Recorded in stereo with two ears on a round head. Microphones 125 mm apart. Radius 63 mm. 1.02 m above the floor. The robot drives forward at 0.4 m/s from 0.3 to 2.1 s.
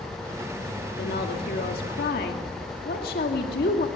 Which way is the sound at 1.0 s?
75° left (ahead or behind).